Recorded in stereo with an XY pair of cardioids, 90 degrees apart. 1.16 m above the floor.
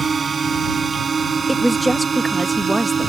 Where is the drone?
40° right; by 3.1 s 45° right.